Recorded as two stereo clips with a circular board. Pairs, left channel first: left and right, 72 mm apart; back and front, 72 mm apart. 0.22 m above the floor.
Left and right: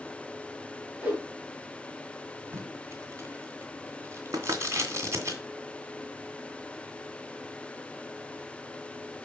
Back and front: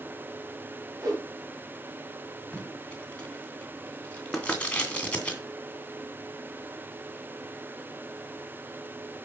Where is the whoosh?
20° right, 3.5 m.